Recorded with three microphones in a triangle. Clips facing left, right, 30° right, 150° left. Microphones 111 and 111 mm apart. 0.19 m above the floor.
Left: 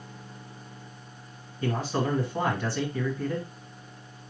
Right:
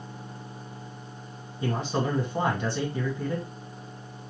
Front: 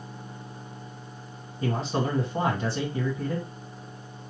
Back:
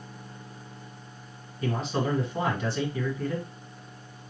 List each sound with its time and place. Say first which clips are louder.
1.6 s a man speaking: even, front 1 dB; 35° right, 1.9 m